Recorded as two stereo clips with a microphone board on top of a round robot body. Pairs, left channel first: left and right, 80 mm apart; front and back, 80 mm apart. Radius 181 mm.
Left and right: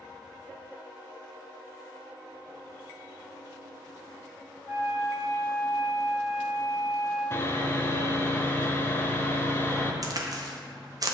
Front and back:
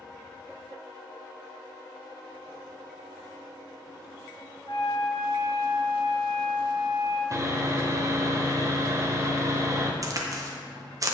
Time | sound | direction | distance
4.7 | a flute | 30° right | 1.6 m
7.3 | sawing | 145° left | 1.1 m
10.0 | a crack | 130° right | 0.9 m